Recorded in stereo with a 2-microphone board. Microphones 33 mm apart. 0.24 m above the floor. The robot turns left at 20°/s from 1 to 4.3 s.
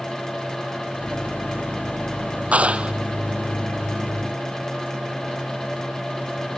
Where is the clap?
40° right (ahead or behind); by 2.9 s 35° right (ahead or behind).